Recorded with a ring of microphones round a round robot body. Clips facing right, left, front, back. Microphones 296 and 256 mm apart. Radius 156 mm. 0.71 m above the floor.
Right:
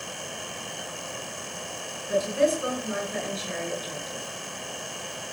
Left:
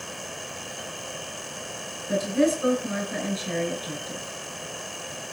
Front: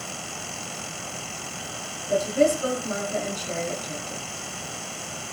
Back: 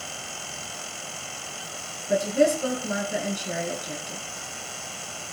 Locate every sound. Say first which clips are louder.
2.1 s a woman speaking: left 2 dB, even; 100° left, 9 m